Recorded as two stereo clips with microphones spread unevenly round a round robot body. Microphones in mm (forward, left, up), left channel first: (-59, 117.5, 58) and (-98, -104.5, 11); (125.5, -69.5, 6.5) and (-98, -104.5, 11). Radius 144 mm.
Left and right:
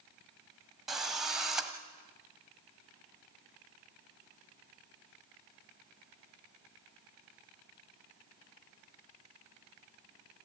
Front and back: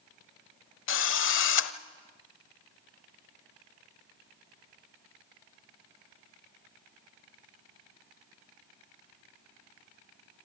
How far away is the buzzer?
I don't hear a buzzer.